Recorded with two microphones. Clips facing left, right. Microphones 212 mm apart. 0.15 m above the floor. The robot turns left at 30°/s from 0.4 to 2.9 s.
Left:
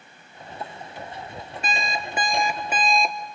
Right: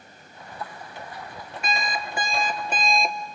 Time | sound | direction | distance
1.6 | an alarm clock | 40° left | 1.6 m